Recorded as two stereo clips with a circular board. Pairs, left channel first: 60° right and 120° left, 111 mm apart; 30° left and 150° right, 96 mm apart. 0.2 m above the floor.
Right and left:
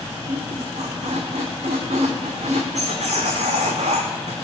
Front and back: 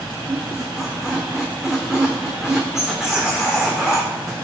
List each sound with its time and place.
0.3 s a squeak: 125° left, 1.4 m